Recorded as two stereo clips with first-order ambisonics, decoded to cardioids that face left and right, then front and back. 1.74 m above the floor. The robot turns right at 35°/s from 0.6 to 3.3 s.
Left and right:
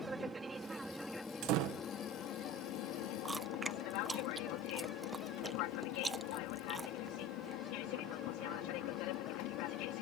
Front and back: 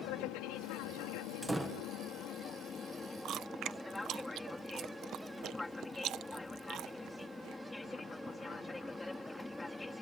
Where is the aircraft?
15° right; by 10.0 s 80° left.